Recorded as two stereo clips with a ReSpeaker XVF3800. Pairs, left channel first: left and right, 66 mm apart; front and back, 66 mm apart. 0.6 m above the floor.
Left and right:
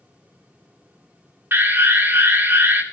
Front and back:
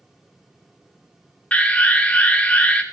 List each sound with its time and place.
1.5 s an alarm: 60° right, 1.6 m